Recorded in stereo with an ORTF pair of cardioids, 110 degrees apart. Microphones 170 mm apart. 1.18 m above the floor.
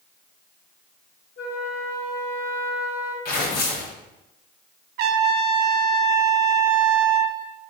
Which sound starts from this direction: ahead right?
A trumpet, at 5.0 s.